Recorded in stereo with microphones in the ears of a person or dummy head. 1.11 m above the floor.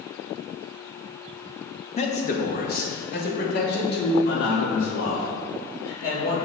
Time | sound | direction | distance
2.0 | a man speaking | 30° left (ahead or behind) | 0.8 m